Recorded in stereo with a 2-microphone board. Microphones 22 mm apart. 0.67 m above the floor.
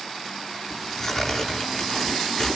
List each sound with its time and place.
0.7 s tearing paper: 15° left (ahead or behind), 8.5 m